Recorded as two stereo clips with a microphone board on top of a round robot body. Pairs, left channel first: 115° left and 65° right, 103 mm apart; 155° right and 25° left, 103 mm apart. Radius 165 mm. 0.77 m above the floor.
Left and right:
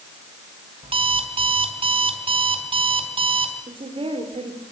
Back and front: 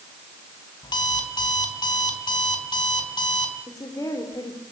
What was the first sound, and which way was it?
An alarm clock, 105° right.